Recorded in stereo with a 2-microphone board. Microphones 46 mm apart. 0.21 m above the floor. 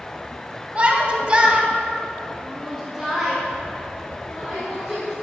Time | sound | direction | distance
0.8 | a shout | 25° right (ahead or behind) | 1.1 m